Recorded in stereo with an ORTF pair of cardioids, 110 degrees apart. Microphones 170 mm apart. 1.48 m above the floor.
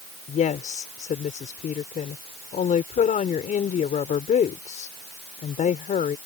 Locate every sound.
0.3 s a woman speaking: 45° left